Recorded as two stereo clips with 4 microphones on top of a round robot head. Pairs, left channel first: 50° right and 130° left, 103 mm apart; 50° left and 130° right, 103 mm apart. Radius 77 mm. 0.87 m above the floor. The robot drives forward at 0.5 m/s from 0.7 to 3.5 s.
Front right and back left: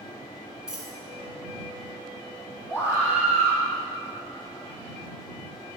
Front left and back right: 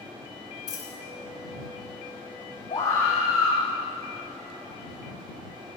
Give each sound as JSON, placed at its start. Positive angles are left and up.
{"t": 0.7, "sound": "a dropped coin", "azimuth_deg": 50, "distance_m": 1.1}
{"t": 2.7, "sound": "a scream", "azimuth_deg": 65, "distance_m": 3.5}